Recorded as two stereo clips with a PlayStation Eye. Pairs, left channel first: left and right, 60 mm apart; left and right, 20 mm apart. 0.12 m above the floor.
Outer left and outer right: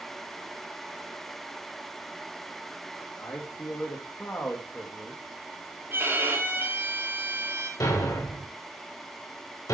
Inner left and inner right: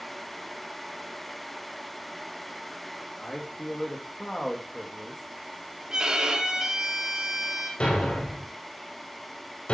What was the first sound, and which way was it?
A man speaking, 50° left (ahead or behind).